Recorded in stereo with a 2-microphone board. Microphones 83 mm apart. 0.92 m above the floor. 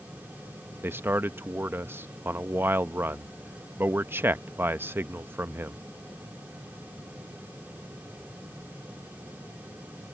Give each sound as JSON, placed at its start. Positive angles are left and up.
{"t": 0.8, "sound": "a man speaking", "side_deg": -30}